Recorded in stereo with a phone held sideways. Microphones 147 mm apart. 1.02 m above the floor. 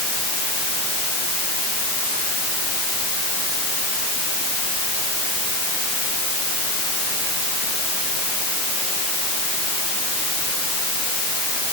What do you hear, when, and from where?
Only background noise.